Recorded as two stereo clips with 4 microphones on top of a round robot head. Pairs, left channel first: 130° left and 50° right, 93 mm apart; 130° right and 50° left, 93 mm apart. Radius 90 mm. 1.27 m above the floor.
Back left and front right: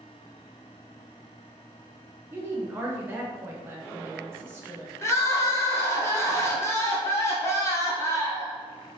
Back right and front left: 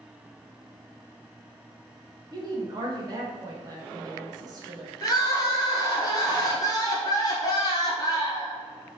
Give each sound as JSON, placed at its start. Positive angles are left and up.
{"t": 2.3, "sound": "a woman speaking", "azimuth_deg": 15, "distance_m": 0.7}
{"t": 5.0, "sound": "crying", "azimuth_deg": -170, "distance_m": 0.8}